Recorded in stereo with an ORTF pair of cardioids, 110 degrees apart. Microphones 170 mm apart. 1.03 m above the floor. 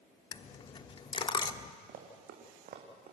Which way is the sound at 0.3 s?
30° left.